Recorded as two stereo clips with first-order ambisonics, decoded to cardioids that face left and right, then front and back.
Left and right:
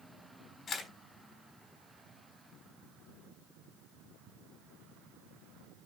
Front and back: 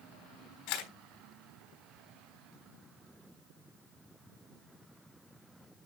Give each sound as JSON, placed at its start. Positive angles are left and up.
{"t": 0.7, "sound": "a camera shutter", "azimuth_deg": 20, "distance_m": 3.5}